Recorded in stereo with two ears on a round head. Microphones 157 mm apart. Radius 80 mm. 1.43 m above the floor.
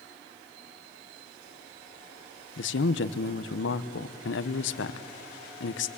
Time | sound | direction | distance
2.6 | a man speaking | 75° left (ahead or behind) | 1.0 m